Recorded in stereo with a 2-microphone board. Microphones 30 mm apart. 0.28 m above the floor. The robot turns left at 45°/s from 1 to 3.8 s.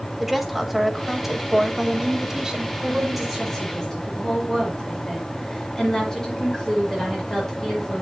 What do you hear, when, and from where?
0.2 s a woman speaking: 10° right (ahead or behind), 1.3 m; by 2.7 s 25° right (ahead or behind), 1.3 m
2.8 s a woman speaking: 155° right, 5 m; by 8.0 s 160° left, 5 m